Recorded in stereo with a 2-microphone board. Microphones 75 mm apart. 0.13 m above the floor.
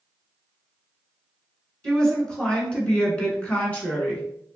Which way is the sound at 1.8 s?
10° left (ahead or behind).